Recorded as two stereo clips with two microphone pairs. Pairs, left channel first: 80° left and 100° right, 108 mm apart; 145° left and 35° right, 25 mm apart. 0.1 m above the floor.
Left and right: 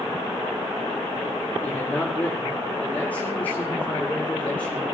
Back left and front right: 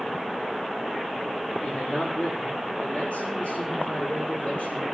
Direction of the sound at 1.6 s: 150° left.